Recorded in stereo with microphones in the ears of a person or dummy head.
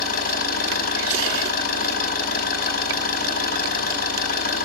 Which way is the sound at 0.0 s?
50° left (ahead or behind).